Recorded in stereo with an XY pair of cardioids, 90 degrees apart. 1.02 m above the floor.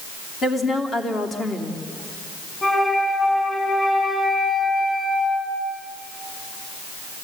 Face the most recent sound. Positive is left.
turn(degrees=30)